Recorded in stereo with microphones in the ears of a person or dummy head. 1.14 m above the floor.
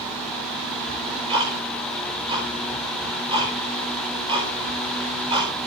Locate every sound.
0.9 s ticking: 25° right (ahead or behind), 5.5 m